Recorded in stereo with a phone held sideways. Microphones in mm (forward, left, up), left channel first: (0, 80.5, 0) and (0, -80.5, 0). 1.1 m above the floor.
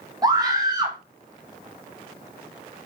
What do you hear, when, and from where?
0.2 s a scream: 25° right (ahead or behind), 2.0 m